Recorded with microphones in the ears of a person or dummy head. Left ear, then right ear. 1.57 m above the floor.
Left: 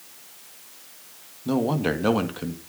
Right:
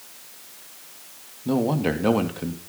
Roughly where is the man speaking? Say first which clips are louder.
Right 1 dB; centre.